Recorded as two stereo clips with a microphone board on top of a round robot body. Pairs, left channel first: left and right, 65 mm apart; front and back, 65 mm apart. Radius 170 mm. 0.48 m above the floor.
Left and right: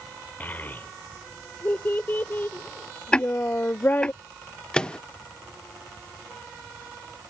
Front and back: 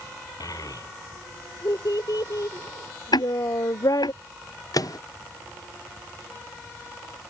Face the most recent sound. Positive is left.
turn(degrees=15)